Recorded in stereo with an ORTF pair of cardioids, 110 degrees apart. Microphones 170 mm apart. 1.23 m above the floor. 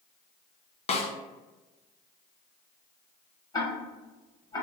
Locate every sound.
0.9 s a snare drum: 40° left, 1.0 m
3.5 s ticking: 25° left, 1.9 m